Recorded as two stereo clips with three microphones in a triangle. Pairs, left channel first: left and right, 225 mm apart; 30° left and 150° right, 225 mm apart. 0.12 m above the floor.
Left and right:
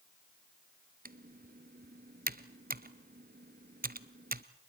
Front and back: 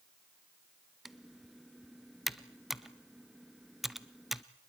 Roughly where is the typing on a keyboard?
Ahead right.